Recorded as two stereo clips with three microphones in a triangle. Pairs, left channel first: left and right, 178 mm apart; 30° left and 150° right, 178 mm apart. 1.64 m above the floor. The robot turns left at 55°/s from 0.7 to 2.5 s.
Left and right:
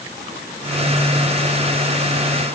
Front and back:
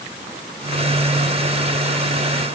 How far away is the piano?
I don't hear a piano.